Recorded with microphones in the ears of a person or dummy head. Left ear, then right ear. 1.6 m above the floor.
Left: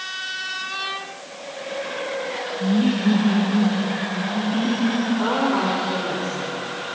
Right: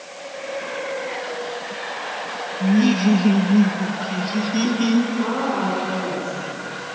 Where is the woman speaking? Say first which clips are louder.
Left 2 dB; 30° left (ahead or behind), 5 m.